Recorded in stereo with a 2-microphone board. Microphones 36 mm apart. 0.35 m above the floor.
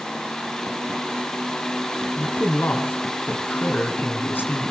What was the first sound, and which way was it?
A man speaking, 75° left (ahead or behind).